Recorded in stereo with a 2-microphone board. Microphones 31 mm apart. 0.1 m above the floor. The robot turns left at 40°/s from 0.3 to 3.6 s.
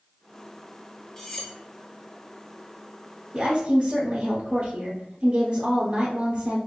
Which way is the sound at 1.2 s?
20° left (ahead or behind).